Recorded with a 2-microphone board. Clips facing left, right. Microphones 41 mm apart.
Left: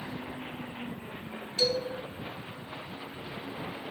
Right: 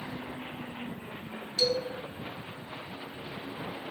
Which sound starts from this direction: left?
A man speaking, at 1.6 s.